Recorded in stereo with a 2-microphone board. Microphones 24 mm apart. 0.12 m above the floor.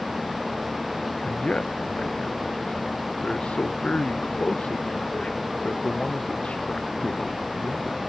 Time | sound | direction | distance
1.2 | a man speaking | 60° left (ahead or behind) | ?